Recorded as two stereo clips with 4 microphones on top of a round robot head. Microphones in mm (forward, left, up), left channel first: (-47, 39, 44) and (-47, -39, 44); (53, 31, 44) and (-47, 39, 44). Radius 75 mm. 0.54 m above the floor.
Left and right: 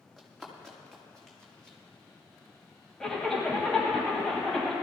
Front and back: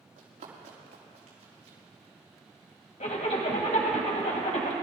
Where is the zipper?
5° left, 2.0 m.